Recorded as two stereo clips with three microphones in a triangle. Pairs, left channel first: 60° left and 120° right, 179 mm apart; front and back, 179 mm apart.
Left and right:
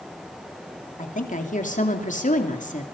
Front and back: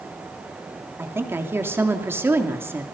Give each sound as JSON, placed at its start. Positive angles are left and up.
{"t": 1.0, "sound": "a woman speaking", "azimuth_deg": 105, "distance_m": 3.0}